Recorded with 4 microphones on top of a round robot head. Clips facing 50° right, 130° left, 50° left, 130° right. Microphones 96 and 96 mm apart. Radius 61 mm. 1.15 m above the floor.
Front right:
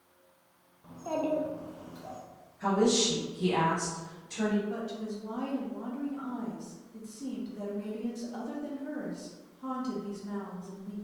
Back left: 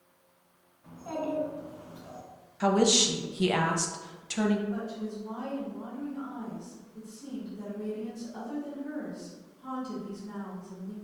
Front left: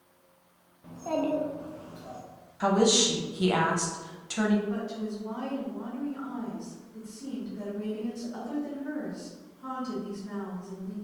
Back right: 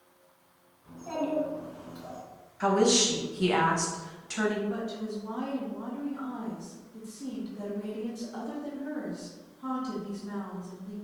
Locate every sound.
0.8 s a child speaking: 30° left, 0.6 m; by 2.2 s 70° right, 0.9 m
2.6 s a woman speaking: 130° left, 0.5 m
4.7 s a woman speaking: 50° right, 1.0 m